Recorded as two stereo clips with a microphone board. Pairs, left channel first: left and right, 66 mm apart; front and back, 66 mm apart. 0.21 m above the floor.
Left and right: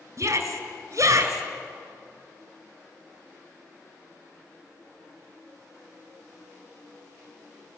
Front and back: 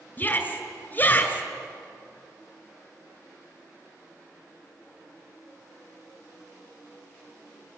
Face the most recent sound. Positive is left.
turn(degrees=-55)